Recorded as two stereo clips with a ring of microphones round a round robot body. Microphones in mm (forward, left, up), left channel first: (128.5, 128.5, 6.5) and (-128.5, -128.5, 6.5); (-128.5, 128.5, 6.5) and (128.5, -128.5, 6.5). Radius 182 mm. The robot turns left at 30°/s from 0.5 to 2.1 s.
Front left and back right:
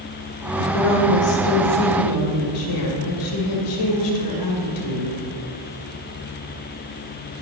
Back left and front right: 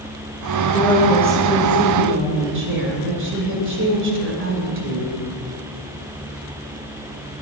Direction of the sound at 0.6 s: 60° left.